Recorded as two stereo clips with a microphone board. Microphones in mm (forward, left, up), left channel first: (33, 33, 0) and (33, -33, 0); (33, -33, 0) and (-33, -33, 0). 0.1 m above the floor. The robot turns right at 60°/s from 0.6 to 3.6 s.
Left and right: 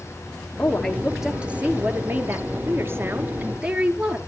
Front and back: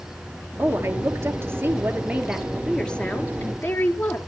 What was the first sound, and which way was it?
A woman speaking, 155° left.